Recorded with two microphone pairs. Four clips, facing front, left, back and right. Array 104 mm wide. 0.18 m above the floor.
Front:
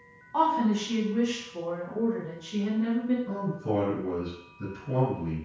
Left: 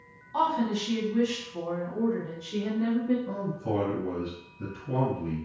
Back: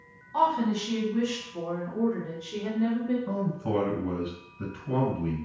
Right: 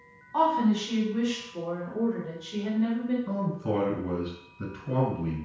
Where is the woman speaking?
35° right, 1.1 m; by 3.2 s 130° left, 1.7 m.